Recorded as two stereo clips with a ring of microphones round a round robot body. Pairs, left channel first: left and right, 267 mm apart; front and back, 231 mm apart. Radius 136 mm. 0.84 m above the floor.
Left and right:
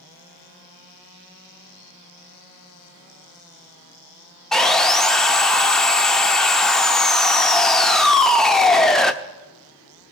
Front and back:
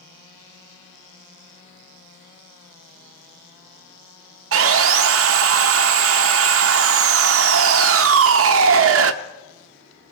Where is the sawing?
Straight behind, 0.7 m.